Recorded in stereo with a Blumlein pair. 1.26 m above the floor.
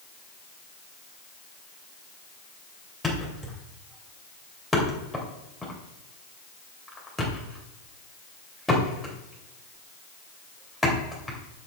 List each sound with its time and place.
3.0 s a thud: 5° left, 2.5 m